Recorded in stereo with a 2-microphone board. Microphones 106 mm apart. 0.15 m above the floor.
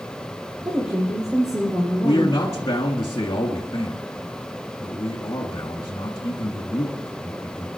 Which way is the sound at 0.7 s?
10° right (ahead or behind).